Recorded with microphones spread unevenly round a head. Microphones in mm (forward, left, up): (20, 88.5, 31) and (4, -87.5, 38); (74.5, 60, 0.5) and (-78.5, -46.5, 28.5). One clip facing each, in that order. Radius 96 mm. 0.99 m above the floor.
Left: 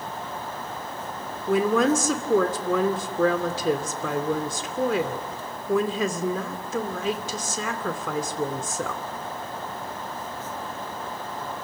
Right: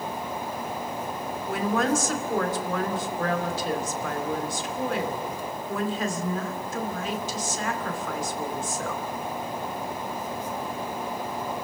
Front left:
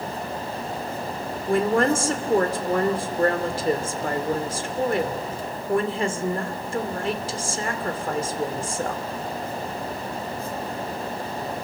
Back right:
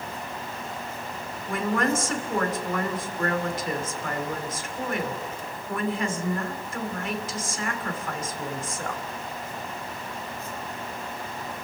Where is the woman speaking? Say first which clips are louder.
Left 5 dB, front left 5 dB; 95° left, 2.5 m.